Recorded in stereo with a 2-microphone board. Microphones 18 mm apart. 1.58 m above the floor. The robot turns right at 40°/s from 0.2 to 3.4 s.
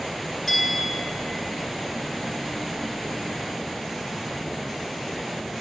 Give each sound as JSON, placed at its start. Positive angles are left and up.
{"t": 0.5, "sound": "a bell", "side_deg": -5, "distance_m": 1.3}